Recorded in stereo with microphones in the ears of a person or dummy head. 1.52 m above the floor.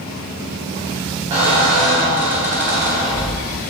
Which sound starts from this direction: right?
A squeak, at 1.3 s.